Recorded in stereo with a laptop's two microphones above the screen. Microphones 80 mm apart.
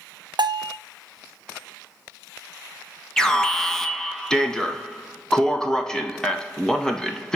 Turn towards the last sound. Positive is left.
turn(degrees=10)  # may be behind; listen again after turning